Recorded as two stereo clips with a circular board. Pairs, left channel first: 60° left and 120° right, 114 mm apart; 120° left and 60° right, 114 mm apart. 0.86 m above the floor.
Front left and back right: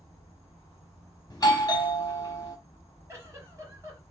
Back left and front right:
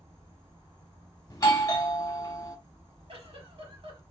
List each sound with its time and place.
0.0 s an insect: straight ahead, 1.8 m
1.3 s a doorbell: 85° left, 0.9 m
3.1 s a giggle: 60° right, 1.2 m